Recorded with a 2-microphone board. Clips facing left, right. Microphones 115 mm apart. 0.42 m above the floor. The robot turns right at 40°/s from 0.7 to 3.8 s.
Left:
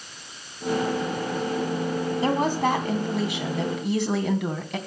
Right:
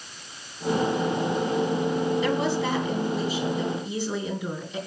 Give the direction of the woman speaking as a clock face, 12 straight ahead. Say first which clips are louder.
Left 2 dB; 11 o'clock.